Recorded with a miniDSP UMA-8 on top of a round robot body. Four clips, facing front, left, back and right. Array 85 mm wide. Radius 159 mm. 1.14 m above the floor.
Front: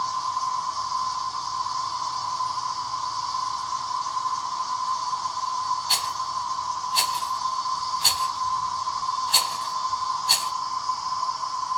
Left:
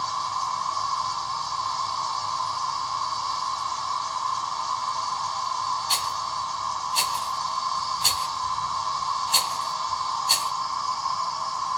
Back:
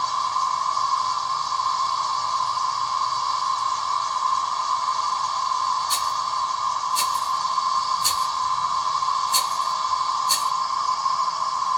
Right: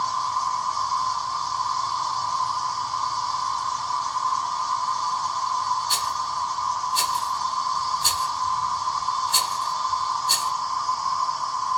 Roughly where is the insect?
Behind.